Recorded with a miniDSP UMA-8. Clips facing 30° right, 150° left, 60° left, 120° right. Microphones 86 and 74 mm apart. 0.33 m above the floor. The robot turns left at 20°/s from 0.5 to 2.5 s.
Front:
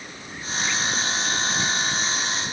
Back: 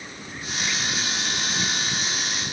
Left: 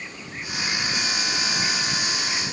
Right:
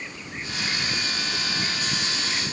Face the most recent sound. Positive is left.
No sound to turn to.